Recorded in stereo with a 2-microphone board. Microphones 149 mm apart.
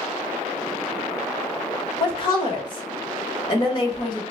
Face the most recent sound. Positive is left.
turn(degrees=35)  # may be behind; listen again after turning